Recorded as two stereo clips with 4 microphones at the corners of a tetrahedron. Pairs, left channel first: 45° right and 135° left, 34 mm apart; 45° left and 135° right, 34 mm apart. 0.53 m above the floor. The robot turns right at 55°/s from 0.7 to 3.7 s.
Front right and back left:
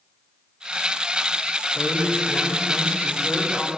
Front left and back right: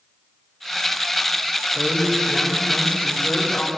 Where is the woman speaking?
70° right, 3.5 m; by 3.7 s 35° left, 3.5 m.